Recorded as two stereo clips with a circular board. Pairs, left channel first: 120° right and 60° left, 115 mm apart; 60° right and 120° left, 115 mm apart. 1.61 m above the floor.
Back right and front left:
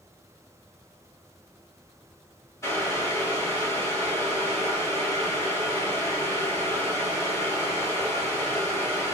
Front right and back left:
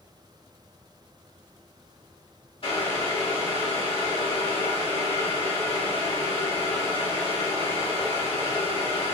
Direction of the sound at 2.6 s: 60° right.